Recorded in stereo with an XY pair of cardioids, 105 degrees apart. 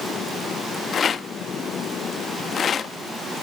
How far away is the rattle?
About 0.8 m.